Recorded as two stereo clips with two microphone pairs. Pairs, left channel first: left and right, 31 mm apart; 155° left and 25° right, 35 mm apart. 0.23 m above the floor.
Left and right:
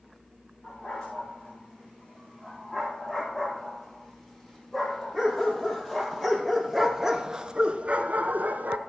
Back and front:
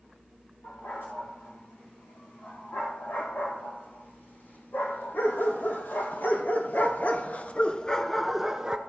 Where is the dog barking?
155° left, 6 m; by 8.8 s 90° right, 1.0 m.